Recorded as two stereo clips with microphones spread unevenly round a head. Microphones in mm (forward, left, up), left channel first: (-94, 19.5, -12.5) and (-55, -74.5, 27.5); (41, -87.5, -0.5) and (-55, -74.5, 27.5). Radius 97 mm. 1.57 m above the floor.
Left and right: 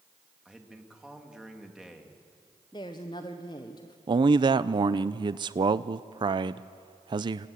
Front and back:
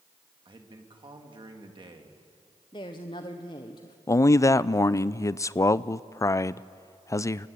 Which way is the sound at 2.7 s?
50° left.